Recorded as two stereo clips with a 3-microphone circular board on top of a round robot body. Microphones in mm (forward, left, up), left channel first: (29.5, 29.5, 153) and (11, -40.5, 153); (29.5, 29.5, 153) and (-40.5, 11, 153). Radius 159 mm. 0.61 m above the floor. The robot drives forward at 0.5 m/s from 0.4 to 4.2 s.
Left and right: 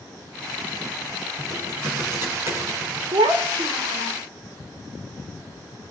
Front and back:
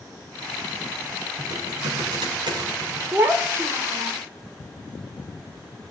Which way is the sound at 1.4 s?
160° right.